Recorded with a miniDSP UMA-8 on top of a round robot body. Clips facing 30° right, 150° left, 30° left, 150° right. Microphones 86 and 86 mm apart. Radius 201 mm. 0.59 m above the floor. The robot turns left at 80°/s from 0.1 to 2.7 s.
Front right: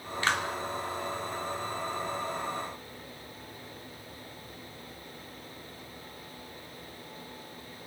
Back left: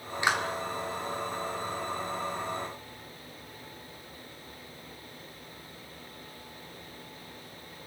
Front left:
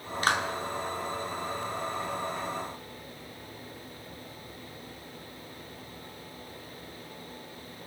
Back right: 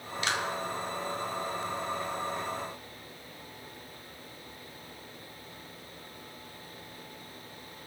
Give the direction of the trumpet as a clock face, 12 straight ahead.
I don't hear a trumpet.